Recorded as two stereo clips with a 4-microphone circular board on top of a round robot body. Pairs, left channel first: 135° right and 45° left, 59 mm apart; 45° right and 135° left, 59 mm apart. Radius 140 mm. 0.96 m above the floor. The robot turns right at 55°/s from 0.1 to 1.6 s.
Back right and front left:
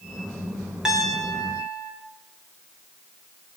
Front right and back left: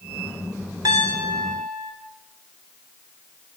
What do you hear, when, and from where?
0.8 s a piano: 125° left, 0.9 m; by 1.9 s 170° left, 0.9 m